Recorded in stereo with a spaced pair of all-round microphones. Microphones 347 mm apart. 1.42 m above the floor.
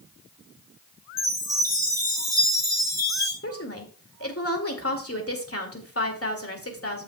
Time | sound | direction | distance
1.2 | a chime | 10° right (ahead or behind) | 4.5 m
3.4 | a woman speaking | 40° left (ahead or behind) | 2 m